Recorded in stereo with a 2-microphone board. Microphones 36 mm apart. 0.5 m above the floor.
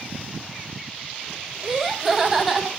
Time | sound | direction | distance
1.6 | laughter | 20° right (ahead or behind) | 1.9 m